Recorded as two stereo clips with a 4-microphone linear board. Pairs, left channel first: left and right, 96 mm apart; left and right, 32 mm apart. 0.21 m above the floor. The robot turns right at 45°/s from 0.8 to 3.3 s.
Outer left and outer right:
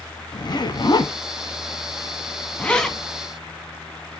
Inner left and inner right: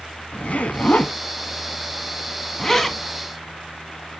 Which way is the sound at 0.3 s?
50° left (ahead or behind).